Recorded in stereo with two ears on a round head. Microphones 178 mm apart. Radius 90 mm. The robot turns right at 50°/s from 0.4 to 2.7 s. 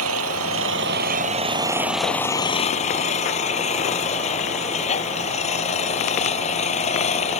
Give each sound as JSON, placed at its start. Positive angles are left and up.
{"t": 0.0, "sound": "an engine running", "azimuth_deg": -80}